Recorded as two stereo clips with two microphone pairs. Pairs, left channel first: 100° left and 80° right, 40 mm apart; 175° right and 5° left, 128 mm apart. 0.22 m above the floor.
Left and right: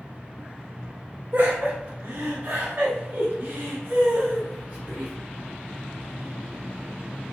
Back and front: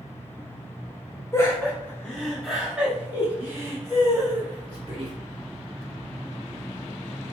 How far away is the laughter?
About 1.6 m.